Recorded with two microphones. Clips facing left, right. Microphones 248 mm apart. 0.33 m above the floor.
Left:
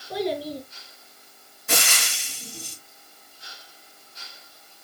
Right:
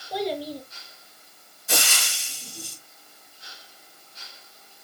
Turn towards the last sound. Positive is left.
turn(degrees=65)  # may be behind; listen again after turning